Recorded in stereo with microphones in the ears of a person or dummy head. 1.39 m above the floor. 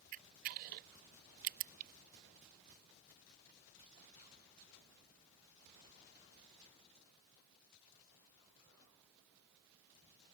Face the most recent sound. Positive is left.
turn(degrees=-45)  # may be behind; listen again after turning